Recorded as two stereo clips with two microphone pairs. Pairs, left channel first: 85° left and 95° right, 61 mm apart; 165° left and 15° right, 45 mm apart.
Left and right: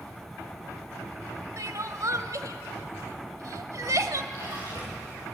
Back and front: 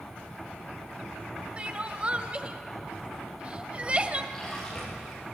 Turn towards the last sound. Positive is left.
turn(degrees=-120)